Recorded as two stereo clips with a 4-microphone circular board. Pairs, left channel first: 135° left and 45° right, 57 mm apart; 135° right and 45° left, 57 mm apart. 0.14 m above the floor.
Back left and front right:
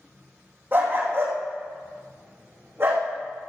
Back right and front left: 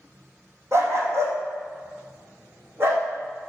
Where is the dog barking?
5° left, 3 m; by 3.0 s straight ahead, 4 m.